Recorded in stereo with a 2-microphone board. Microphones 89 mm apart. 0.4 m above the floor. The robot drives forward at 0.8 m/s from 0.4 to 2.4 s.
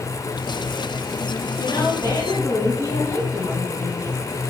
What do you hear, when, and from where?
1.6 s a woman speaking: 40° left (ahead or behind), 2.5 m; by 4.3 s 35° left (ahead or behind), 3 m